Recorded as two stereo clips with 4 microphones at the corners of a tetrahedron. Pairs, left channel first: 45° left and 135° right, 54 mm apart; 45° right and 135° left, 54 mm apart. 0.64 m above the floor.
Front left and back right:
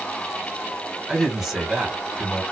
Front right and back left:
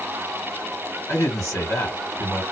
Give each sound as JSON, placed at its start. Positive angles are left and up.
{"t": 1.1, "sound": "a man speaking", "azimuth_deg": -50, "distance_m": 2.0}